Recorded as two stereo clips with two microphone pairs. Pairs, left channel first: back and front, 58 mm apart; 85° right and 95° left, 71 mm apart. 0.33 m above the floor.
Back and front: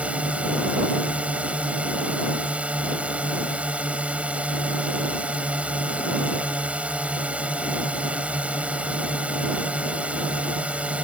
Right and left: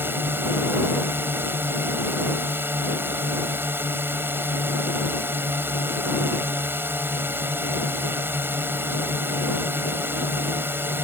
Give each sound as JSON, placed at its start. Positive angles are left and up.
{"t": 0.0, "sound": "a drone", "azimuth_deg": 55}